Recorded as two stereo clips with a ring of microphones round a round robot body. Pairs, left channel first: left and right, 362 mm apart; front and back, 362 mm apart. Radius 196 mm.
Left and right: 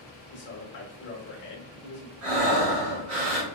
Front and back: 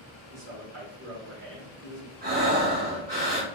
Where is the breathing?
110° right, 1.7 m.